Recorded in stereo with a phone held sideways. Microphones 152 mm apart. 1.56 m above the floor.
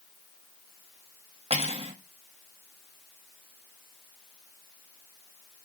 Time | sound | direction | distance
1.5 | cutlery clinking | 40° right (ahead or behind) | 1.5 m